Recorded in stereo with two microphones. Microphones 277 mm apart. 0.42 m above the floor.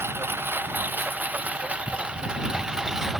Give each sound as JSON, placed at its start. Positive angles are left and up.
{"t": 0.0, "sound": "a lawn mower", "side_deg": -10}